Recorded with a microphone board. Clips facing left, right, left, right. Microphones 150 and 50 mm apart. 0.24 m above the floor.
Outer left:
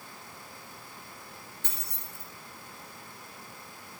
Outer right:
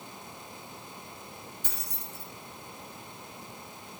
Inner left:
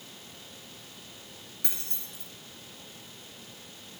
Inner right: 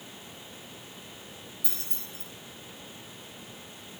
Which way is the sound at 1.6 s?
65° left (ahead or behind).